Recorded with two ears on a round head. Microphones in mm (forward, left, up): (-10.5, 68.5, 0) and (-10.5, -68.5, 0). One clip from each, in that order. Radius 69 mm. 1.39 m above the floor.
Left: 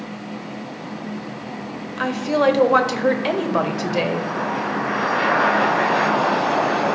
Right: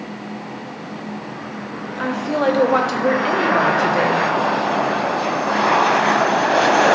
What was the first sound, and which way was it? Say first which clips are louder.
A woman speaking: left 1 dB; 20° left (ahead or behind).